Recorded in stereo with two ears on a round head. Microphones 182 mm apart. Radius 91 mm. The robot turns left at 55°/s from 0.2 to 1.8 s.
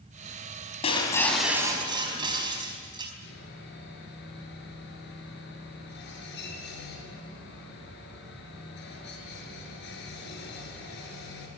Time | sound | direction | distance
0.8 | breaking glass | 30° left | 4.5 m
3.2 | sawing | 55° left (ahead or behind) | 6.5 m